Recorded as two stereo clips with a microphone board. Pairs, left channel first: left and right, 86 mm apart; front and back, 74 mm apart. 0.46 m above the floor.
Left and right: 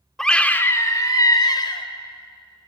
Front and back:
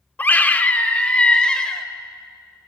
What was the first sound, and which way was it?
A scream, 15° left.